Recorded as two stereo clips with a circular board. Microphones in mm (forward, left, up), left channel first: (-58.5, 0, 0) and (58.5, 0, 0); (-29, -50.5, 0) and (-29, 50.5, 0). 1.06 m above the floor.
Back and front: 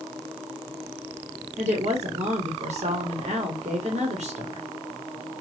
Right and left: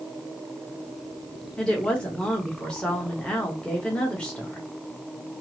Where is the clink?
No clink in this recording.